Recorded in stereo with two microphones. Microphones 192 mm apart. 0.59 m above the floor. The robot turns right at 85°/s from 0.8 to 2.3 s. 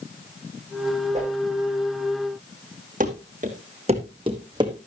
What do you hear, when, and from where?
1.1 s a whoosh: 35° right (ahead or behind), 8 m; by 1.3 s 20° right (ahead or behind), 8 m
3.0 s running footsteps: 45° right (ahead or behind), 2.5 m; by 4.7 s 20° right (ahead or behind), 2.5 m